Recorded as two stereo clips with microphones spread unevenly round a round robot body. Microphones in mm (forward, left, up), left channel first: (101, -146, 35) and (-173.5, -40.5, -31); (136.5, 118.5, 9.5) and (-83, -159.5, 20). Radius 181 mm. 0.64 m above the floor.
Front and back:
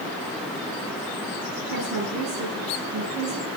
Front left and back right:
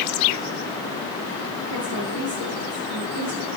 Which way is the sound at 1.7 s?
160° right.